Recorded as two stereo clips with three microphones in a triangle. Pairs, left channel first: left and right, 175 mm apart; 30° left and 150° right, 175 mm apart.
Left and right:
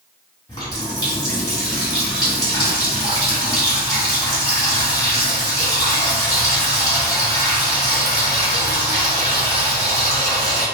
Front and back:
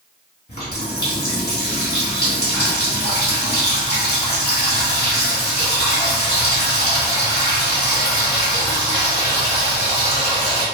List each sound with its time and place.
0.5 s a running tap: 25° left, 1.8 m